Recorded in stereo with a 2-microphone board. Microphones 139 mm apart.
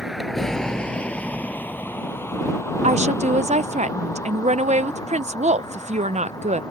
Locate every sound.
0.0 s a vehicle: 5° right (ahead or behind); by 6.7 s 30° left (ahead or behind)
2.8 s a woman speaking: 55° right (ahead or behind)